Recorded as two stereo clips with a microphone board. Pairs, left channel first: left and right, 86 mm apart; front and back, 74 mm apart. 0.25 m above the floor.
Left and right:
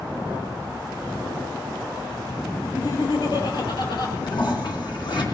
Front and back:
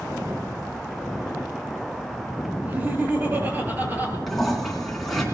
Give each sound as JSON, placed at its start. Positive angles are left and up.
{"t": 2.6, "sound": "laughter", "azimuth_deg": 115, "distance_m": 5.0}
{"t": 4.3, "sound": "a toilet flushing", "azimuth_deg": 85, "distance_m": 3.0}